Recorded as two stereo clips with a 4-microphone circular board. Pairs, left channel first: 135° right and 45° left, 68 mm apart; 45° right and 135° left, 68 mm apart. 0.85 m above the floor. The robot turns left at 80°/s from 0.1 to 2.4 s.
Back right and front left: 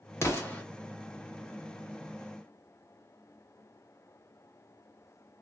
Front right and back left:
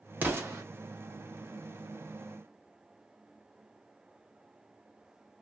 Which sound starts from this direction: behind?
An explosion, at 0.2 s.